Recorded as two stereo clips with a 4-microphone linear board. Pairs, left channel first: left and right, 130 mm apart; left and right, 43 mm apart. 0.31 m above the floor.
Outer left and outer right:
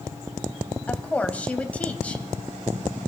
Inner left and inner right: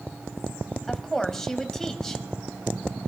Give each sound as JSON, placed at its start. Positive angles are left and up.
{"t": 0.9, "sound": "a woman speaking", "side_deg": 10, "distance_m": 1.6}